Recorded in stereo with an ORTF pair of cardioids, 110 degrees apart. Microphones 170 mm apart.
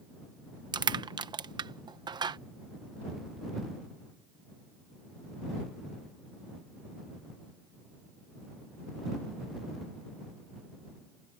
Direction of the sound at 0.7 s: 25° right.